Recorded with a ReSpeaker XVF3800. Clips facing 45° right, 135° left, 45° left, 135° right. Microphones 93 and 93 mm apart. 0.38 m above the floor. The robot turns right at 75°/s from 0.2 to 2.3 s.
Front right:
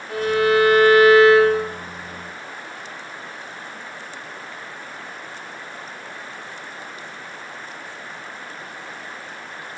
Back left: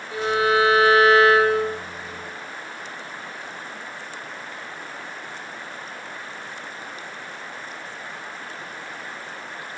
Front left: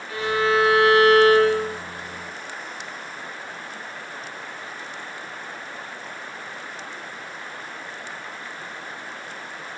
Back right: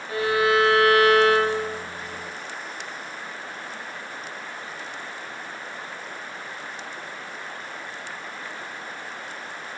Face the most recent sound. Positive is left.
turn(degrees=85)